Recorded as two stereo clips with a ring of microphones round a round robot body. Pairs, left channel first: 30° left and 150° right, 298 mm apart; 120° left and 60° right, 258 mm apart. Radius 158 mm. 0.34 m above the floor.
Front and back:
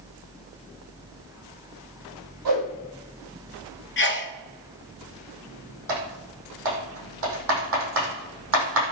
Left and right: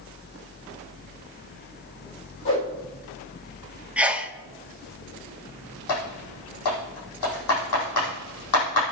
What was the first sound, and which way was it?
A whoosh, 170° left.